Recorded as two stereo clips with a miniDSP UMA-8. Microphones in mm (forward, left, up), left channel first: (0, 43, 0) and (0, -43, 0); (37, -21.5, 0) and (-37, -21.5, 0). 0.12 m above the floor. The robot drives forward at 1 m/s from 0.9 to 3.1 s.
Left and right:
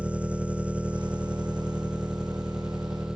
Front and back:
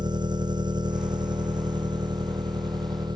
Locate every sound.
0.0 s an engine running: 165° right; by 3.2 s 170° right